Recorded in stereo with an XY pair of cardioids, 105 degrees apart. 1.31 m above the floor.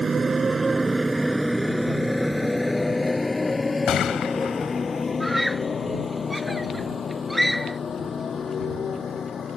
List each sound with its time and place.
0.0 s a motorcycle: 30° right; by 9.6 s 45° left
3.9 s a gunshot: 70° left
5.2 s a scream: straight ahead